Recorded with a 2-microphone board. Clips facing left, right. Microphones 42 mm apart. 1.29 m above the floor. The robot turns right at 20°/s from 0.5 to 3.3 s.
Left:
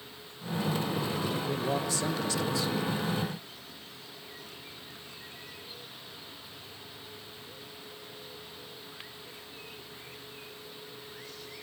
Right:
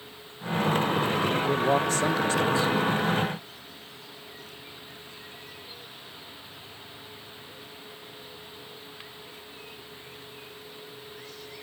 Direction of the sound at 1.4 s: 55° right (ahead or behind).